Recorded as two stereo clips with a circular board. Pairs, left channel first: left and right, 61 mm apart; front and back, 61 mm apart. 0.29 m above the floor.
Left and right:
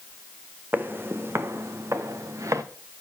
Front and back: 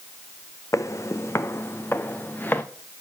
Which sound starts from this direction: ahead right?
Footsteps, at 0.7 s.